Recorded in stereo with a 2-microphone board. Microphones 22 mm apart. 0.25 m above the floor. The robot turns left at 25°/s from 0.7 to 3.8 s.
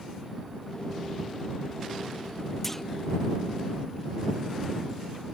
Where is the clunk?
5° left (ahead or behind); by 2.8 s 10° left (ahead or behind).